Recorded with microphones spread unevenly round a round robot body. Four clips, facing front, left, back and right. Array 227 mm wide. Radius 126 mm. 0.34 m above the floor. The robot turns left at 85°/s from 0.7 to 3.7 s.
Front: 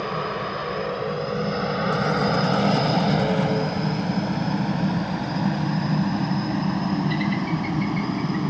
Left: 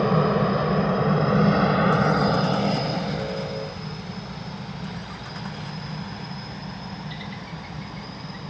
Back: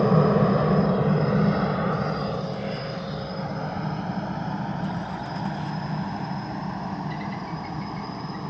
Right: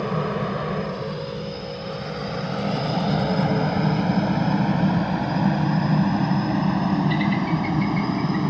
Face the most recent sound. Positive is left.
turn(degrees=-60)